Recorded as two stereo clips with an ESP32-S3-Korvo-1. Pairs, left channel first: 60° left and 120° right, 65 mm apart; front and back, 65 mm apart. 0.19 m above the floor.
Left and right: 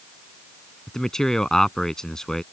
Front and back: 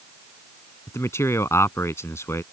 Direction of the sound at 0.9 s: 20° right.